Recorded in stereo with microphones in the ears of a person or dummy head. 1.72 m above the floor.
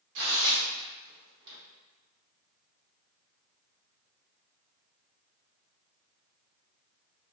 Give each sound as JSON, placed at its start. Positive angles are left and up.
{"t": 0.1, "sound": "tearing paper", "side_deg": -65, "distance_m": 0.7}